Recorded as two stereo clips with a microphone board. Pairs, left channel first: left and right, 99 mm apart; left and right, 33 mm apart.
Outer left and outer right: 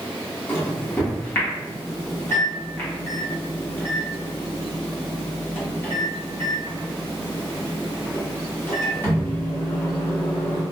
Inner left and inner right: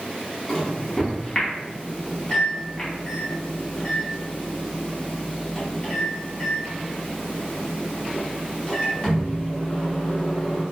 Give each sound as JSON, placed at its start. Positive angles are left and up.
{"t": 0.5, "sound": "a microwave", "side_deg": 20, "distance_m": 1.3}